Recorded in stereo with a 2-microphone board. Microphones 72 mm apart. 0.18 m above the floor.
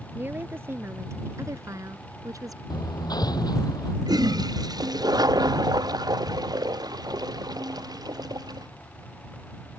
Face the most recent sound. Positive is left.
turn(degrees=-65)  # may be behind; listen again after turning